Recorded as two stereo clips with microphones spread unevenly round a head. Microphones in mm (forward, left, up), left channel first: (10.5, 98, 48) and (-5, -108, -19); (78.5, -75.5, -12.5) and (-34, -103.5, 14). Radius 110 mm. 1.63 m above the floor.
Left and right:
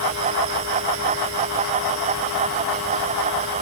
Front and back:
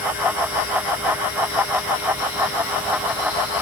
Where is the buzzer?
No buzzer in this recording.